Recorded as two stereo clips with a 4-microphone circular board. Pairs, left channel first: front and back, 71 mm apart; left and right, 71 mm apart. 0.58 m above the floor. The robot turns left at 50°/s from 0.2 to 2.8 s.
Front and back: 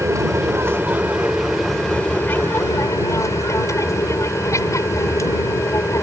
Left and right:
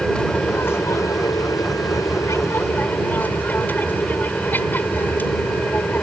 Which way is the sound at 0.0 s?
160° left.